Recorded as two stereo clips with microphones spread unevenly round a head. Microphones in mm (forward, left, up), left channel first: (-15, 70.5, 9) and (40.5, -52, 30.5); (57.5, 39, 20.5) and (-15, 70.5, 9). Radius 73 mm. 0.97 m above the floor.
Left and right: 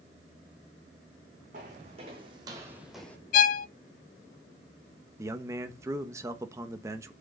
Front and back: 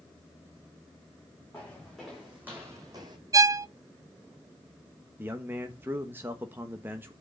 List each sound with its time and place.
1.5 s footsteps: 105° right, 3 m; by 3.2 s 165° right, 1.4 m
3.3 s a violin: 115° left, 0.6 m
5.2 s a man speaking: 140° right, 1.0 m